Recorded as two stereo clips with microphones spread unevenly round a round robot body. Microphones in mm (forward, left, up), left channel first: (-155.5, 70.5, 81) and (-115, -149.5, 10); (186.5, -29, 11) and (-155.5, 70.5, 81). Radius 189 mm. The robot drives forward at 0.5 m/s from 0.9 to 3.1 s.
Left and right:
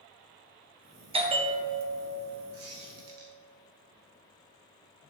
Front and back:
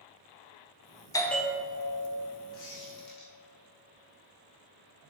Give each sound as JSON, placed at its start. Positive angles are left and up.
{"t": 1.1, "sound": "a bell", "azimuth_deg": -75, "distance_m": 0.8}
{"t": 2.5, "sound": "a squeak", "azimuth_deg": -75, "distance_m": 2.0}